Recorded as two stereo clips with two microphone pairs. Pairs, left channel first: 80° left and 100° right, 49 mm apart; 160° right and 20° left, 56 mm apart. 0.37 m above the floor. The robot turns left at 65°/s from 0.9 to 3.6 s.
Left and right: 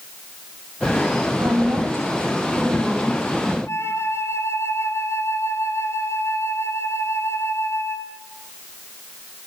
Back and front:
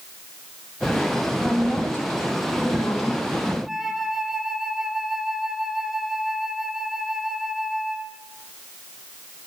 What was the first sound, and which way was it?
A woman speaking, 80° right.